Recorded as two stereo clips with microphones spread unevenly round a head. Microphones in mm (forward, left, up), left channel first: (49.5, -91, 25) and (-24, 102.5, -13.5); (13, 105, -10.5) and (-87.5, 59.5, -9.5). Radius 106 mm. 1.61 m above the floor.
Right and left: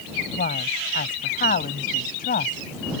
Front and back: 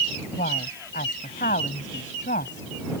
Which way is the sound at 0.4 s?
20° right.